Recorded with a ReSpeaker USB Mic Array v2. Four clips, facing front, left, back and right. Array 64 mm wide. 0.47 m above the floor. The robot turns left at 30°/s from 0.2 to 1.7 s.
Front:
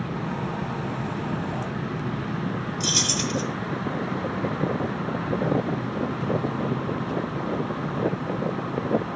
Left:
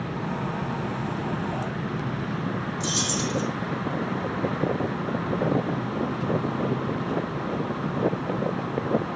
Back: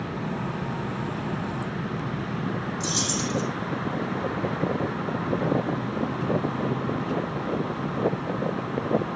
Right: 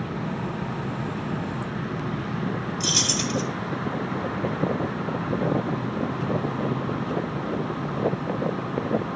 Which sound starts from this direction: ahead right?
Keys jangling, at 2.8 s.